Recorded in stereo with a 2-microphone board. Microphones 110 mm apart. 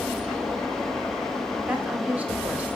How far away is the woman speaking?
About 1.3 m.